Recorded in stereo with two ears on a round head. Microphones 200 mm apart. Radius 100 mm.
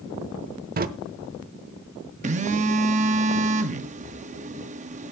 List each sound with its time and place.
0.8 s a drawer: 40° right (ahead or behind), 0.8 m
2.2 s a phone buzzing: 35° right (ahead or behind), 0.7 m